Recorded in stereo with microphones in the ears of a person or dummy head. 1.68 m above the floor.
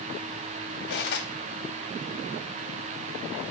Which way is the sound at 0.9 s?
55° left (ahead or behind).